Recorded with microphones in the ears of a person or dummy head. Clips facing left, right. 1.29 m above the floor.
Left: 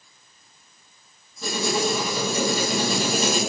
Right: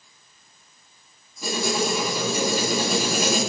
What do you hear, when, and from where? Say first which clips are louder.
1.4 s writing: even; centre (ahead or behind), 0.7 m